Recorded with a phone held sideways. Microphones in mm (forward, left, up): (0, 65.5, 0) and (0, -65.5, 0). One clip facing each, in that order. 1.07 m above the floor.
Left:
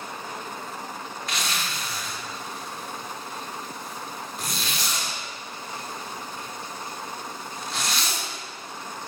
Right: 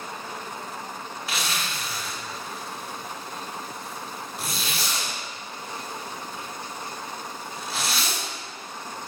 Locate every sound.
1.3 s a zipper: 5° right (ahead or behind), 1.6 m